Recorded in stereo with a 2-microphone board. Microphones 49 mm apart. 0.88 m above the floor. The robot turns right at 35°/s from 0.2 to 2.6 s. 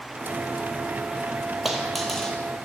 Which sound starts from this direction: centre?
A dropped coin, at 1.6 s.